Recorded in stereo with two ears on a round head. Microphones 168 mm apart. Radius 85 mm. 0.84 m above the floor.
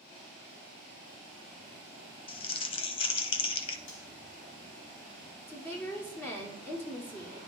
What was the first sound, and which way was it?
Crumpling, 30° left (ahead or behind).